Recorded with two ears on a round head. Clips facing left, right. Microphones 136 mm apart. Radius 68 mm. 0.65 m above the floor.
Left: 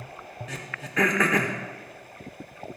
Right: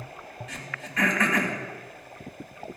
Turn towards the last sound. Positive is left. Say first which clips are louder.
# left 2 dB
turn(degrees=70)  # may be behind; listen again after turning